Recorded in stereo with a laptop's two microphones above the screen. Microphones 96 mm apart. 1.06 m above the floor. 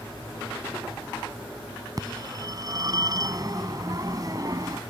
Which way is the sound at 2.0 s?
40° right (ahead or behind).